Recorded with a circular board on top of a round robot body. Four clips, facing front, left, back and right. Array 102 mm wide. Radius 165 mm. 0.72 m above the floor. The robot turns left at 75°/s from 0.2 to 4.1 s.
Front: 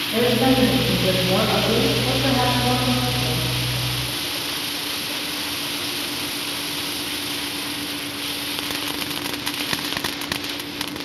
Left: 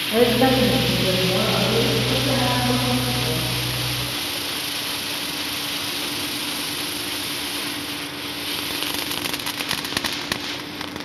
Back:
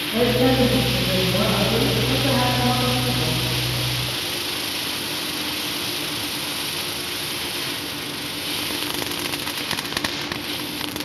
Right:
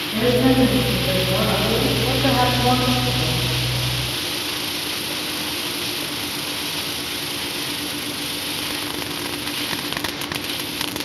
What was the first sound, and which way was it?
A woman speaking, 95° left.